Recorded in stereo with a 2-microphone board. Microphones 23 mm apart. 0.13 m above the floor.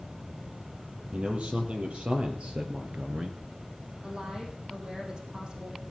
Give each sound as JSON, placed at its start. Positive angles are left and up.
{"t": 1.1, "sound": "a man speaking", "side_deg": -60, "distance_m": 4.0}
{"t": 4.0, "sound": "a woman speaking", "side_deg": -40, "distance_m": 4.5}